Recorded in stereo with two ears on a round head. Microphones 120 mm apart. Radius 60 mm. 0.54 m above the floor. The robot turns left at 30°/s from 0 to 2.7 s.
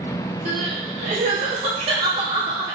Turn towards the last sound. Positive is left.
turn(degrees=-25)  # may be behind; listen again after turning